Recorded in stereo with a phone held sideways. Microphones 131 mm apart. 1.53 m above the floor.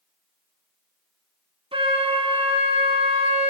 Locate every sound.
1.7 s a flute: 40° right (ahead or behind), 1.0 m